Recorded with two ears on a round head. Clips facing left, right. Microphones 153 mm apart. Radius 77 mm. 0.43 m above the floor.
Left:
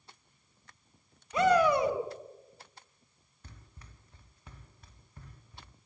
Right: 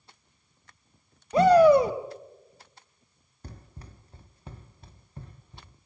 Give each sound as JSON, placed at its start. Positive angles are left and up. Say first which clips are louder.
{"t": 1.3, "sound": "a shout", "louder": "right 8 dB", "side_deg": -30, "distance_m": 2.5}
{"t": 3.4, "sound": "running footsteps", "louder": "right 9 dB", "side_deg": -30, "distance_m": 1.6}